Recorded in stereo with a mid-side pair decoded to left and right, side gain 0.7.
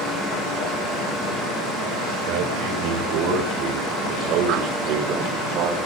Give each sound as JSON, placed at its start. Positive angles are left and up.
{"t": 2.3, "sound": "a man speaking", "azimuth_deg": -65, "distance_m": 8.5}